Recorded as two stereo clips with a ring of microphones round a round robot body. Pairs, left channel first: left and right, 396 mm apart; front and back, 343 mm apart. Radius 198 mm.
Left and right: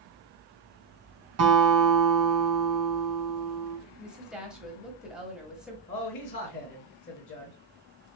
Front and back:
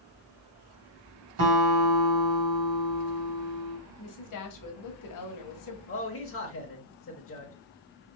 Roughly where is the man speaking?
Ahead left.